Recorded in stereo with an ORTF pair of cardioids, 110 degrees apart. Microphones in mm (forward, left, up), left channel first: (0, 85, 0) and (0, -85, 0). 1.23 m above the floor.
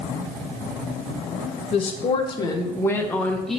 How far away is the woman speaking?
About 1.5 m.